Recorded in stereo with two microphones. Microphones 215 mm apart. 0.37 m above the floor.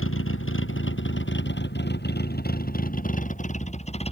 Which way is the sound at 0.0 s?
75° left (ahead or behind).